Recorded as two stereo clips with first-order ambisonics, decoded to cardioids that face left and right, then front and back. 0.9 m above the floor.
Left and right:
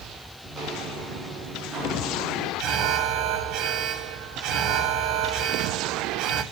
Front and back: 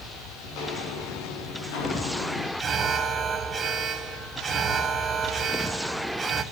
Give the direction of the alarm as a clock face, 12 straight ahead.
4 o'clock.